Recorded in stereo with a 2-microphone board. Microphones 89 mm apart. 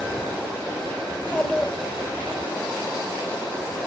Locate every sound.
1.1 s a child speaking: 10° left (ahead or behind), 2.5 m